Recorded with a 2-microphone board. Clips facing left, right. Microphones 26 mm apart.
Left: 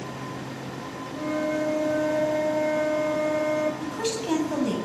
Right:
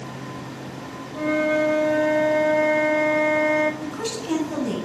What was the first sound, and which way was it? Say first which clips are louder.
A flute: right 6 dB; 45° right (ahead or behind).